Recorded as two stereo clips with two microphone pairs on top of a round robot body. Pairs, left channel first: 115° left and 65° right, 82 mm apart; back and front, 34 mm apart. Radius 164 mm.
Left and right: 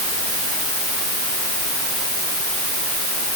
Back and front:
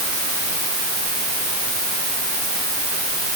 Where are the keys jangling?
I don't hear keys jangling.